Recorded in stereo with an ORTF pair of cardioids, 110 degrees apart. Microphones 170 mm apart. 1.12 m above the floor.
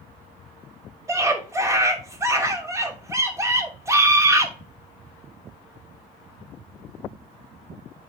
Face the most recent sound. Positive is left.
turn(degrees=-15)